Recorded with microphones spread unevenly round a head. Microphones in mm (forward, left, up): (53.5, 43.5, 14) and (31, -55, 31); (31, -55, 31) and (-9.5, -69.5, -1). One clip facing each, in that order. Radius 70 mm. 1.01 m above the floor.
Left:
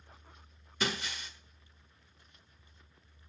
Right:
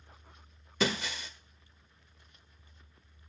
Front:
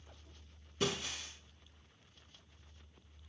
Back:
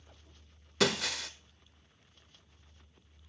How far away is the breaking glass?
About 1.4 m.